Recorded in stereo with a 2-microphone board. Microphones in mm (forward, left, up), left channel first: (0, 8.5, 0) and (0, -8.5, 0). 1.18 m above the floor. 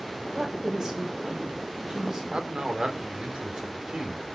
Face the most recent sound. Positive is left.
turn(degrees=-65)  # may be behind; listen again after turning